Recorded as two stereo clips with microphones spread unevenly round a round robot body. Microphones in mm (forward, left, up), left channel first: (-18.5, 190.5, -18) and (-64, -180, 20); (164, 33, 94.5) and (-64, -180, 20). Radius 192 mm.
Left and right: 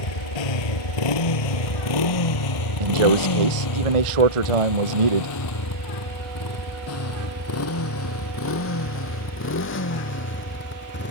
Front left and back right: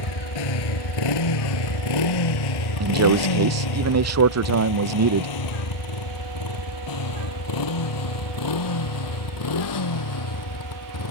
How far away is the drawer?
I don't hear a drawer.